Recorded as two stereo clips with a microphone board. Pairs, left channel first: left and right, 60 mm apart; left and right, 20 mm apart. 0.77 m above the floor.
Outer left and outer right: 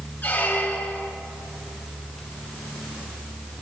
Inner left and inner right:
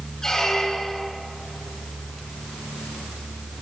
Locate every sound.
0.2 s a squeak: 30° left (ahead or behind), 0.6 m